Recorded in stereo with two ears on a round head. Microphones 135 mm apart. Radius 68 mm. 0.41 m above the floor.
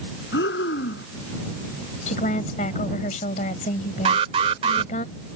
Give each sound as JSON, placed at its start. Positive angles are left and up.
{"t": 0.3, "sound": "breathing", "side_deg": 80}
{"t": 2.1, "sound": "a woman speaking", "side_deg": 50}
{"t": 4.0, "sound": "an alarm", "side_deg": -40}